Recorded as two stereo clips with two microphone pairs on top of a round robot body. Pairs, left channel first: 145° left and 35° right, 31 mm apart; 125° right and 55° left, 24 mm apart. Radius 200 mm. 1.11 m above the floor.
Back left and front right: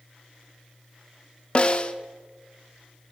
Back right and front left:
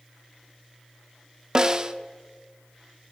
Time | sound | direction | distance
1.6 | a snare drum | 105° left | 0.7 m